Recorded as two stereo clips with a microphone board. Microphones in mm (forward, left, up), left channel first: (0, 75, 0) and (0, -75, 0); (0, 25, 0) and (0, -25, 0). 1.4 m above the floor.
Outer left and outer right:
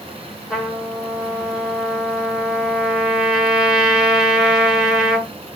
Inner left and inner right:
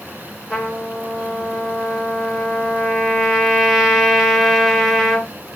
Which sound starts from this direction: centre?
A trumpet, at 0.5 s.